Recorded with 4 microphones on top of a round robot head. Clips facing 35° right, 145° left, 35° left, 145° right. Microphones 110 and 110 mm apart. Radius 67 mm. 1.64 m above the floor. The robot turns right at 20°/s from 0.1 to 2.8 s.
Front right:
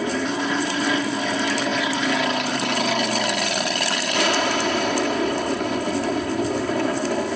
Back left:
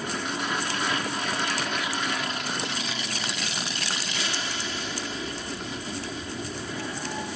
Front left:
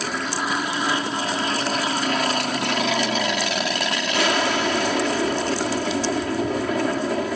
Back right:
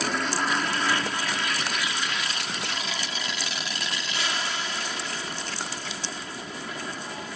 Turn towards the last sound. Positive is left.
turn(degrees=0)